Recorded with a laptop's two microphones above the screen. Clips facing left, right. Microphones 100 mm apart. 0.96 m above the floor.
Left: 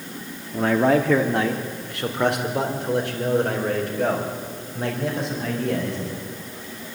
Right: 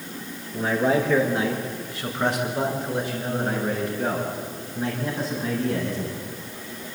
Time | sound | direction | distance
0.5 | a man speaking | 65° left (ahead or behind) | 2.5 m